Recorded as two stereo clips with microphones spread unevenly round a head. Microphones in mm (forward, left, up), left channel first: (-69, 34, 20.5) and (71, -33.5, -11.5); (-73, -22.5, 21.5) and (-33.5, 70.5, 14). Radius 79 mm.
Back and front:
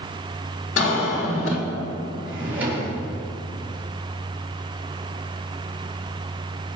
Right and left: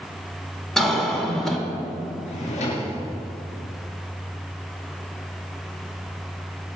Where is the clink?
No clink in this recording.